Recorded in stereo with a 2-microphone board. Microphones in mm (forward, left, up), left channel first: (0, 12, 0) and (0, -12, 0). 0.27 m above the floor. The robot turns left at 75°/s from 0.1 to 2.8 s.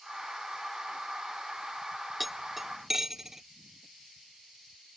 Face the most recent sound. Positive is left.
turn(degrees=-20)  # may be behind; listen again after turning